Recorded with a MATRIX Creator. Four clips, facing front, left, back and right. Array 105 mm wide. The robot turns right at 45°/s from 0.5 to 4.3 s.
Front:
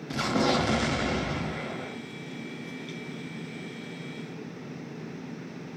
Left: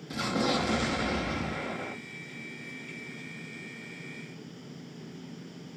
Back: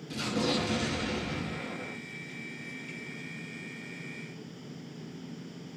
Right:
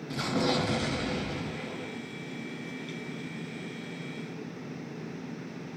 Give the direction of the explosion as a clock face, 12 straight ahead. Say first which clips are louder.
Even, front 5 dB; 12 o'clock.